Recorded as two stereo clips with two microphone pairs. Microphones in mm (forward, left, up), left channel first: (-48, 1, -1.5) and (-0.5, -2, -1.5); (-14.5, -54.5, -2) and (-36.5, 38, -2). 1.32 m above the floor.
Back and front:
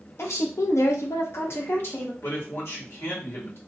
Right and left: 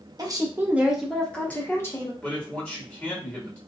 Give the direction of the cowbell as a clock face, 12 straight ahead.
No cowbell in this recording.